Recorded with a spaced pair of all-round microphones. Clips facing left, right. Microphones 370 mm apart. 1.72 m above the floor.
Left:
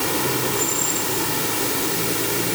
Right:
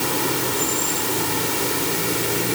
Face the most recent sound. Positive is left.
No sound to turn to.